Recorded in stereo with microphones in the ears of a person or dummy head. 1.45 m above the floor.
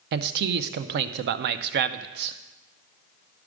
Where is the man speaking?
60° right (ahead or behind), 0.7 m.